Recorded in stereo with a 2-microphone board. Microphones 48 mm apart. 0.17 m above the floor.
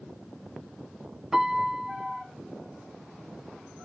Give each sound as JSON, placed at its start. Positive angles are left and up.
{"t": 1.3, "sound": "a piano", "side_deg": -15, "distance_m": 0.8}